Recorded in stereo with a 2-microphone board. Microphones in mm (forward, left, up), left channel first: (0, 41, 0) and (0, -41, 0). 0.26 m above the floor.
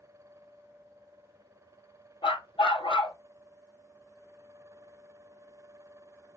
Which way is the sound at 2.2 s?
85° left.